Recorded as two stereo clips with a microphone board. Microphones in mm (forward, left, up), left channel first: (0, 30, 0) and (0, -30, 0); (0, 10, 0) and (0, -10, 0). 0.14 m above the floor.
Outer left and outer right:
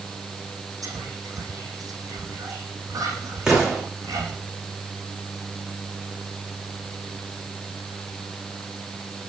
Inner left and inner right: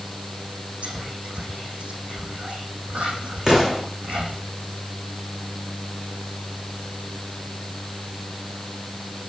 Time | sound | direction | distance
0.8 | whispering | 75° right (ahead or behind) | 5 m
3.5 | an explosion | 10° right (ahead or behind) | 9 m